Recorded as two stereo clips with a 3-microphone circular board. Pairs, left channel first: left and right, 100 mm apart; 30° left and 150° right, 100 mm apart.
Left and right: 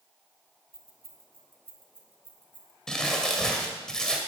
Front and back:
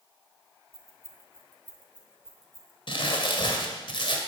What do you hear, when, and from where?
0.7 s keys jangling: 95° right, 1.9 m; by 2.8 s 60° right, 2.5 m
2.9 s crumpling: 5° left, 1.9 m